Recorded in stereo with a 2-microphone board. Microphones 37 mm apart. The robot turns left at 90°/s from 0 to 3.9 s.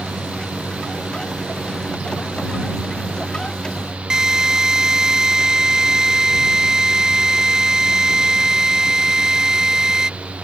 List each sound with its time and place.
4.1 s a drill: 15° right (ahead or behind)